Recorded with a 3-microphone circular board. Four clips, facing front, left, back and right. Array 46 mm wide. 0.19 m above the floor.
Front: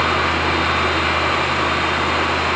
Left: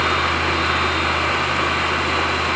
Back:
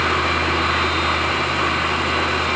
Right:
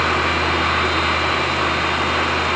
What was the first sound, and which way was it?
Only background noise.